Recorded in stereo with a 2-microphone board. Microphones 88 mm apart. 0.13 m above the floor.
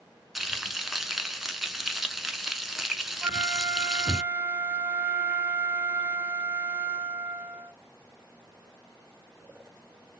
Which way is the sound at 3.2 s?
20° right (ahead or behind).